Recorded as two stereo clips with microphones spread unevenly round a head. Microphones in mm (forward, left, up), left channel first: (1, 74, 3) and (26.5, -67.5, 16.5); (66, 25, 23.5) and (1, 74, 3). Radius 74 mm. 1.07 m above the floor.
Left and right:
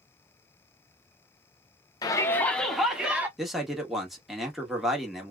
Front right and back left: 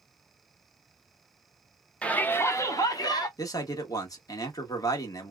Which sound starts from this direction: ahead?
A man speaking, at 3.4 s.